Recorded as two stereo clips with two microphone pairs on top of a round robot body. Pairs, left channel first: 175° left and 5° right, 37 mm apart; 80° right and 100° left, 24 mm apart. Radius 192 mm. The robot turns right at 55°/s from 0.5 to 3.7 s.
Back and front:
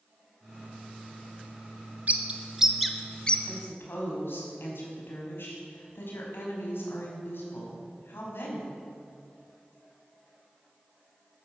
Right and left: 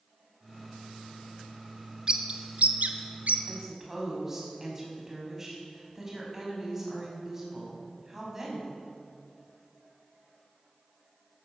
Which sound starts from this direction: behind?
A woman speaking, at 3.5 s.